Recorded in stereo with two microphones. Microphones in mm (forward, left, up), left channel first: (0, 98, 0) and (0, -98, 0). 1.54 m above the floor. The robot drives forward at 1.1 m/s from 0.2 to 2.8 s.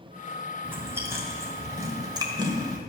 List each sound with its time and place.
0.6 s chewing: 10° right (ahead or behind), 2.5 m; by 2.8 s 20° right (ahead or behind), 1.3 m